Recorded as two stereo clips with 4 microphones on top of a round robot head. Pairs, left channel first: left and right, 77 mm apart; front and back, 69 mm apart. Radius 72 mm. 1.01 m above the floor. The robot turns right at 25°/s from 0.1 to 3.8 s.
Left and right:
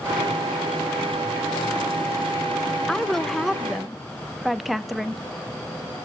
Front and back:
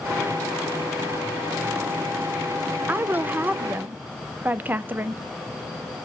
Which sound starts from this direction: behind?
A woman speaking, at 2.9 s.